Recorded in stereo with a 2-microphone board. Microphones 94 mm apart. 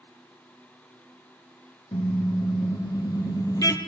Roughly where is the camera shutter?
No camera shutter in this recording.